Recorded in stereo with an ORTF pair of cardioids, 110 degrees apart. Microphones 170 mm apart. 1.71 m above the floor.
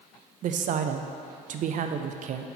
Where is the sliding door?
No sliding door in this recording.